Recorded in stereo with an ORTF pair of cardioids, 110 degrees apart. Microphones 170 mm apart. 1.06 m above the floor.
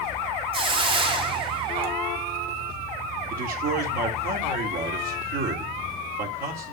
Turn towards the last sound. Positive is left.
turn(degrees=-60)